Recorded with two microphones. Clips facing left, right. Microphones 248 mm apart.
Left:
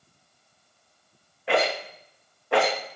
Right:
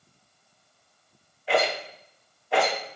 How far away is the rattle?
About 2.5 m.